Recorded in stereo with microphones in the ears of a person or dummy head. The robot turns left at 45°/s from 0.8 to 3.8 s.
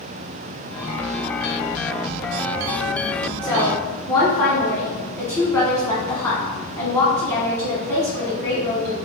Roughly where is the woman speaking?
Centre.